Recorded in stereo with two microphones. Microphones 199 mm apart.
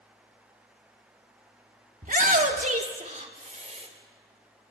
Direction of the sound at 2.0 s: 40° right (ahead or behind).